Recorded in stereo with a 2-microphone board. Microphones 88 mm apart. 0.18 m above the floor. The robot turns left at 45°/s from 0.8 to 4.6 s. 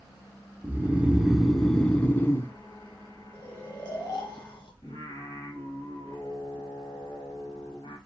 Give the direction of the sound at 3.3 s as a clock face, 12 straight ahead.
6 o'clock.